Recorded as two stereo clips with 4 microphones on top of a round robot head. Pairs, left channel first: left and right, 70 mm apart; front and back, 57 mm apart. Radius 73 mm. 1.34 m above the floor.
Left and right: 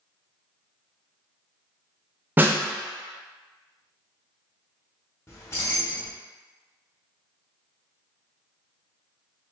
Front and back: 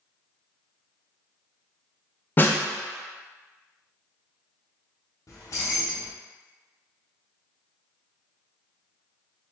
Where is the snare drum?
35° right, 0.6 m.